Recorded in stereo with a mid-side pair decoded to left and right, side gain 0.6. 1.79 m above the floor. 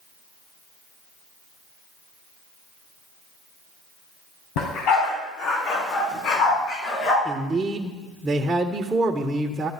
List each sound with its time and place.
4.6 s a dog barking: 70° left, 4.5 m; by 7.2 s 55° left, 7 m
7.2 s a man speaking: 20° right, 1.7 m